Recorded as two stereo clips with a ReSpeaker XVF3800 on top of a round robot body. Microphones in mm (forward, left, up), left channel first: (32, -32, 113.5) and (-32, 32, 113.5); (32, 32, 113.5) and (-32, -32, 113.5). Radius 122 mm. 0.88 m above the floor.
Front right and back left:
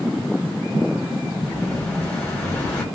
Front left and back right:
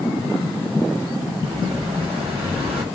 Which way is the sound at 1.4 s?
125° right.